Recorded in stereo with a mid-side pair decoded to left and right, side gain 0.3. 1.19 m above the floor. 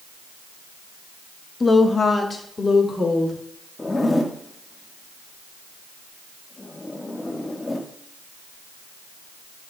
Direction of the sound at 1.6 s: 35° left.